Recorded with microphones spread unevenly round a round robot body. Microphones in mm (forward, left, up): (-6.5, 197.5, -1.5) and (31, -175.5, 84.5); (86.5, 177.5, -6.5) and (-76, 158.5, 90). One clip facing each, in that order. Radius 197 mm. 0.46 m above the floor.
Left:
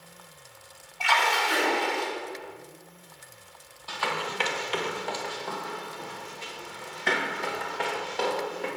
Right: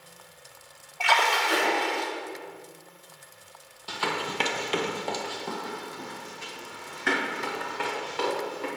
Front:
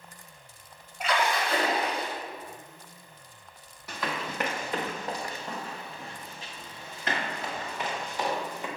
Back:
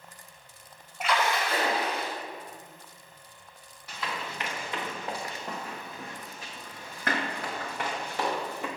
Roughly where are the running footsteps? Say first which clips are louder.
Right 2 dB, front 3 dB; ahead right.